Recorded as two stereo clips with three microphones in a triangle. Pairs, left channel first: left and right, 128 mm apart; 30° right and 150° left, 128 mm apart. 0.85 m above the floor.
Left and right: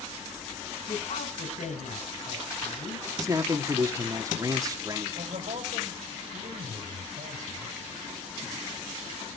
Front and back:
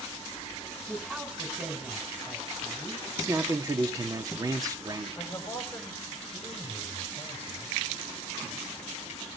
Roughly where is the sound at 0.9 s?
Ahead left.